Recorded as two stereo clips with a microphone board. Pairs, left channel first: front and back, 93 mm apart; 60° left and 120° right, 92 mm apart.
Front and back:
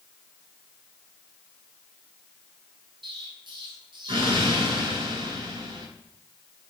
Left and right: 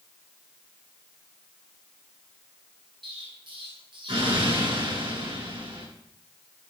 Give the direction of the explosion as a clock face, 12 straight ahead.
5 o'clock.